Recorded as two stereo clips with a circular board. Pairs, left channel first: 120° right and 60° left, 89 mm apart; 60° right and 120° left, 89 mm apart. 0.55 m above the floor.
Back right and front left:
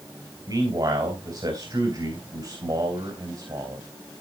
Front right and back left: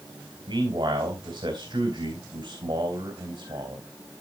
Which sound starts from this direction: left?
A man speaking, at 0.5 s.